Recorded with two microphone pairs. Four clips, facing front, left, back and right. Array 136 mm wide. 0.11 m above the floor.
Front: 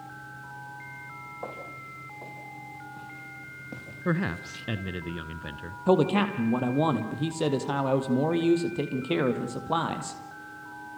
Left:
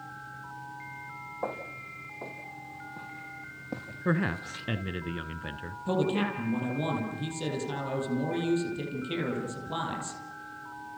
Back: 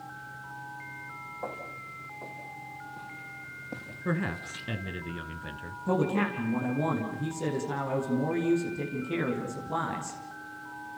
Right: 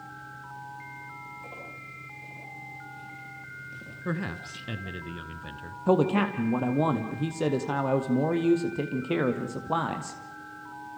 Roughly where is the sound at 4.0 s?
Ahead left.